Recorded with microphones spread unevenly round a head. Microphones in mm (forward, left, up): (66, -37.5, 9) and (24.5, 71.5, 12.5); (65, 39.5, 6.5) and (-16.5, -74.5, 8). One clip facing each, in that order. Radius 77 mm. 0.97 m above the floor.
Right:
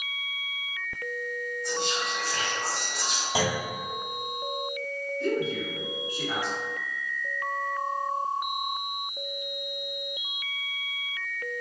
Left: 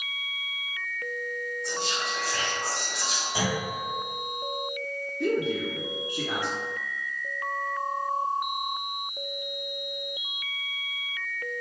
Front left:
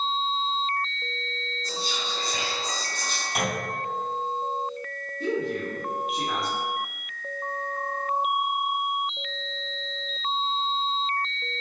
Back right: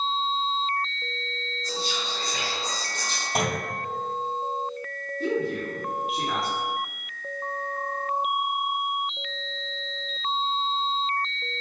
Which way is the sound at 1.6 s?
50° left.